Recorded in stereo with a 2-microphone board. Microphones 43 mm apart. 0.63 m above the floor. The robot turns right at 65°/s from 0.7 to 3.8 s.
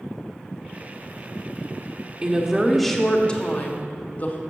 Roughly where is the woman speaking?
Ahead right.